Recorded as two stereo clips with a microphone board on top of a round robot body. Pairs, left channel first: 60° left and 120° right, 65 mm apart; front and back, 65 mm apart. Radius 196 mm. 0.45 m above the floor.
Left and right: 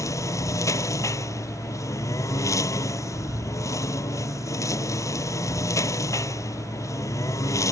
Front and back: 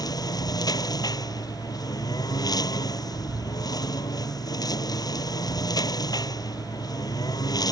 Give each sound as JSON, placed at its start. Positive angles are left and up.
{"t": 0.0, "sound": "a lawn mower", "azimuth_deg": 20}